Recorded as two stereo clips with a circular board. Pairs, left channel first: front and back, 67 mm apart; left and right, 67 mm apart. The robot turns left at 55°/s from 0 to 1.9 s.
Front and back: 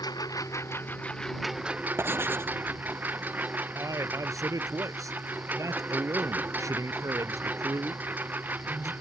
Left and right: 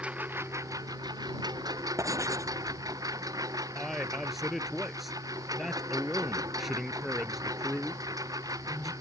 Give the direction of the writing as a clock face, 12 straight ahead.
4 o'clock.